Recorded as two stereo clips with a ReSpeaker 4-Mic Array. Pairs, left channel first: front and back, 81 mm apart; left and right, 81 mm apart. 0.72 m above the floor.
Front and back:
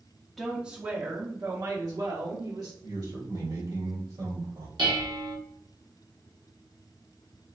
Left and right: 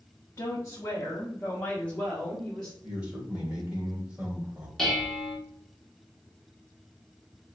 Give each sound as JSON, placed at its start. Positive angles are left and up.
{"t": 0.4, "sound": "a woman speaking", "azimuth_deg": 85, "distance_m": 0.7}
{"t": 2.8, "sound": "a man speaking", "azimuth_deg": -165, "distance_m": 1.8}
{"t": 4.8, "sound": "dishes clattering", "azimuth_deg": 175, "distance_m": 1.1}